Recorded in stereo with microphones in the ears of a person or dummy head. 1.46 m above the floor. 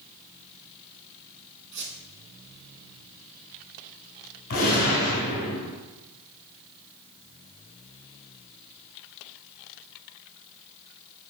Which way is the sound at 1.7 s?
55° right (ahead or behind).